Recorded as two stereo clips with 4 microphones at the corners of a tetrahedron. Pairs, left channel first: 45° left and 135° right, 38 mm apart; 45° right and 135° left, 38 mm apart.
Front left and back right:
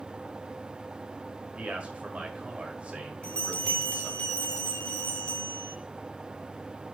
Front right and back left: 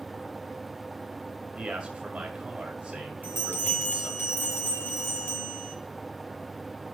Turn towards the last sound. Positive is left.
turn(degrees=-20)